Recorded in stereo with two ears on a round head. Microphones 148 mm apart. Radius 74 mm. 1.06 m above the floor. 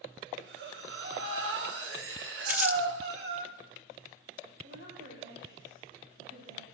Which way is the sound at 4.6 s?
80° right.